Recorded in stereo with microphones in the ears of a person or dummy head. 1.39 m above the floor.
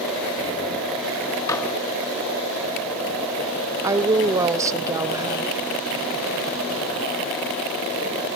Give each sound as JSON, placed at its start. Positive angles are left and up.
{"t": 1.5, "sound": "dishes clattering", "side_deg": 15, "distance_m": 2.0}
{"t": 3.8, "sound": "a woman speaking", "side_deg": -15, "distance_m": 0.7}